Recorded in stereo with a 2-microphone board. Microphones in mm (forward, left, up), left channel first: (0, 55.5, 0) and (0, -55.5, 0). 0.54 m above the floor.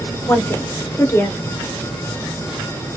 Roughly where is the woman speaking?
Left.